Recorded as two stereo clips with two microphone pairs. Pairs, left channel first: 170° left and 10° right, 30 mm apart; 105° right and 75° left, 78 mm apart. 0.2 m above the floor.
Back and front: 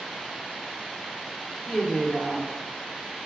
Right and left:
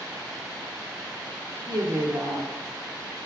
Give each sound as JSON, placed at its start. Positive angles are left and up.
{"t": 1.7, "sound": "a woman speaking", "azimuth_deg": 95, "distance_m": 2.5}